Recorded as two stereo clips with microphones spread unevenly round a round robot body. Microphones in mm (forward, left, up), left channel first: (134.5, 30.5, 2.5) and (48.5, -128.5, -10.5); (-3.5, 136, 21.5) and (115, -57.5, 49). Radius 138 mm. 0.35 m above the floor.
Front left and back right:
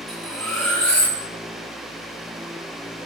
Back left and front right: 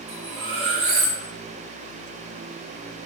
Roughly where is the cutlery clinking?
Ahead right.